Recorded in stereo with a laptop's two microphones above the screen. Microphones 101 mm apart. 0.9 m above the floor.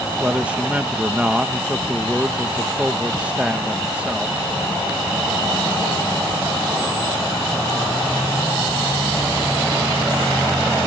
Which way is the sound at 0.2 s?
10° right (ahead or behind).